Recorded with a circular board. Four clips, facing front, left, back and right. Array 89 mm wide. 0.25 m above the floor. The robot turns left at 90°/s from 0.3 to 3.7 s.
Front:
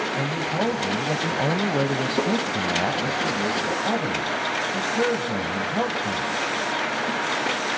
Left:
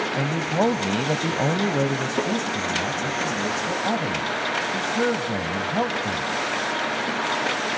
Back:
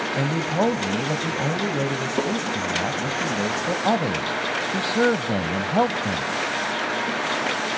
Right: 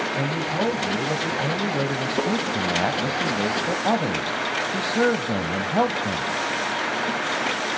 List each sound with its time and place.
0.2 s a man speaking: 160° left, 1.1 m; by 6.2 s 150° right, 1.1 m